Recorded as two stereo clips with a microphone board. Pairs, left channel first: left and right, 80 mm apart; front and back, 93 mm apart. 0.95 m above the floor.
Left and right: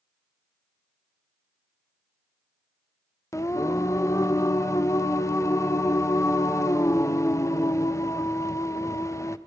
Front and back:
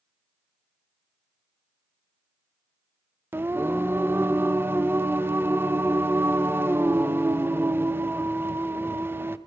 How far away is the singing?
About 0.7 m.